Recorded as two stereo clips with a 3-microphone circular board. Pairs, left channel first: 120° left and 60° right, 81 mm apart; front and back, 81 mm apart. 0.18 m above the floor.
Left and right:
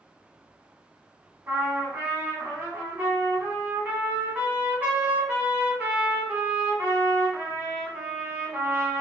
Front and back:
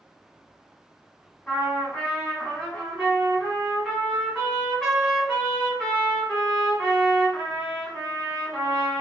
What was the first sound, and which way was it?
A trumpet, 75° right.